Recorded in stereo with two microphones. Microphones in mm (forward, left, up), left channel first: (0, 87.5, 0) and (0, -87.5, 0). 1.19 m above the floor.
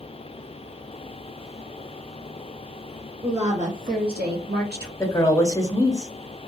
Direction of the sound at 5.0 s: 15° left (ahead or behind).